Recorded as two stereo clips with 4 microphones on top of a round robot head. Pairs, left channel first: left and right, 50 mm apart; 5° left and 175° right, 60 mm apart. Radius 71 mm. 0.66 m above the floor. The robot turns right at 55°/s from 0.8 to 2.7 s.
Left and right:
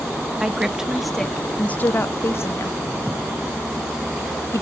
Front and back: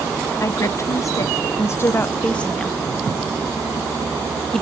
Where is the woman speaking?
15° right, 0.8 m; by 4.6 s 90° left, 0.8 m.